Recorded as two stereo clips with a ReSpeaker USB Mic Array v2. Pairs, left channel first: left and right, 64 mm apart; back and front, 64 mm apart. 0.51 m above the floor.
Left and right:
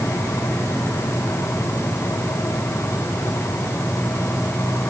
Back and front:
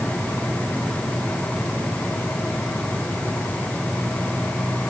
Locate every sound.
Only background noise.